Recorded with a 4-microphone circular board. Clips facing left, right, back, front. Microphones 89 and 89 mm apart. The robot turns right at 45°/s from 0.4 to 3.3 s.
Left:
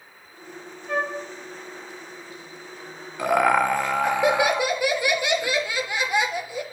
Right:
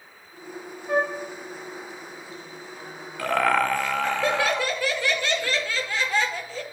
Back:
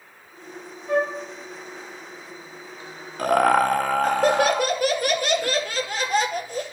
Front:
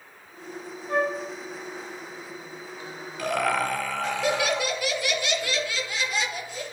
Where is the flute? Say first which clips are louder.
Right 3 dB, back 3 dB; 170° right, 3.5 m; by 1.1 s 160° right, 3.5 m.